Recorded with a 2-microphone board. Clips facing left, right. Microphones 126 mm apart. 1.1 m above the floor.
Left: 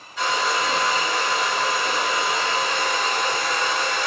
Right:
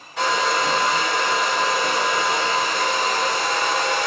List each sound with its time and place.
0.2 s a hair dryer: 80° right, 1.1 m